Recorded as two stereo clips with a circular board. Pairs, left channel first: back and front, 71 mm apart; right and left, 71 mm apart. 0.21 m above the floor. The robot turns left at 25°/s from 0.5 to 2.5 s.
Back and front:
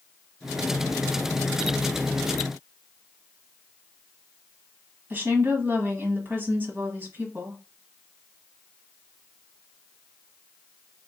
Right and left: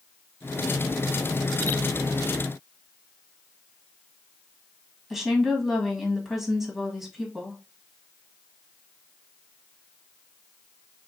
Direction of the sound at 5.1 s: 10° left.